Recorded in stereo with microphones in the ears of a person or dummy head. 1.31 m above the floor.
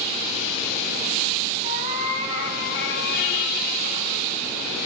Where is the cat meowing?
75° left (ahead or behind), 3.5 m; by 4.3 s 35° left (ahead or behind), 4 m.